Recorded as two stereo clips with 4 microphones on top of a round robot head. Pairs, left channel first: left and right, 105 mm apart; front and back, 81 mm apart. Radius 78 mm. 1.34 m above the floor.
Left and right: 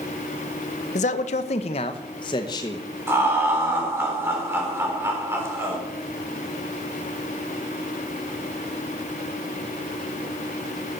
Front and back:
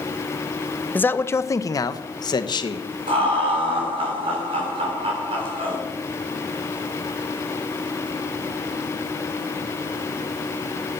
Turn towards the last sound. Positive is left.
turn(degrees=-155)